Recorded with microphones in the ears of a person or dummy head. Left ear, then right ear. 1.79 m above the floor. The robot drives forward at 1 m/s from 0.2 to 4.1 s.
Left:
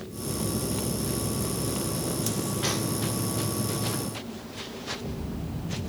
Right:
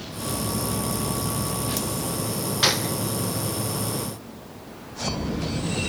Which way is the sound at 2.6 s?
60° right (ahead or behind).